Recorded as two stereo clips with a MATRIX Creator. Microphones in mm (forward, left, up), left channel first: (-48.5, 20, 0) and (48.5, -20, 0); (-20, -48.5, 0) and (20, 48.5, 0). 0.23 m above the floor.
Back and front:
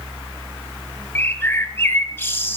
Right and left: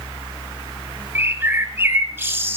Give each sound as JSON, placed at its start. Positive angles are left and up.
{"t": 1.1, "sound": "a bird", "azimuth_deg": 110, "distance_m": 0.8}